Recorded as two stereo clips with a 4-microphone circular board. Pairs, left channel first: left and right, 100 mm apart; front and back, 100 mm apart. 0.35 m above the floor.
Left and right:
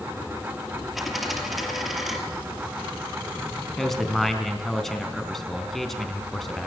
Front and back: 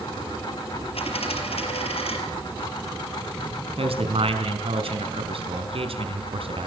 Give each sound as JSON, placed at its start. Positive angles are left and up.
{"t": 0.9, "sound": "a dropped coin", "azimuth_deg": 0, "distance_m": 4.5}
{"t": 3.8, "sound": "a man speaking", "azimuth_deg": 180, "distance_m": 4.0}